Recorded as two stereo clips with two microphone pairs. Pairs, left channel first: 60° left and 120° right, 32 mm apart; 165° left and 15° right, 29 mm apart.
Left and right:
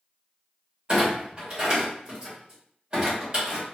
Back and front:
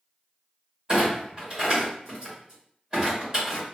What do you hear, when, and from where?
0.9 s a clunk: 65° right, 1.8 m